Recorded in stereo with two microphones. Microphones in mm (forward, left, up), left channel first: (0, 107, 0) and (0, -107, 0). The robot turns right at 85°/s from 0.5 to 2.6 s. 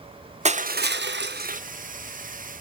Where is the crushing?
140° right, 0.9 m; by 1.6 s 45° right, 0.9 m.